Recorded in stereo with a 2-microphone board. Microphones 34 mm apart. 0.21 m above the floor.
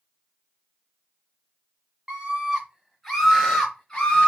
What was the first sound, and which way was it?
A scream, 30° right (ahead or behind).